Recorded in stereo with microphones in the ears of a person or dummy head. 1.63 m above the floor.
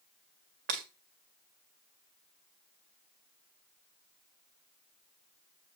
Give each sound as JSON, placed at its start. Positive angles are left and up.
{"t": 0.7, "sound": "breaking glass", "side_deg": -40, "distance_m": 1.8}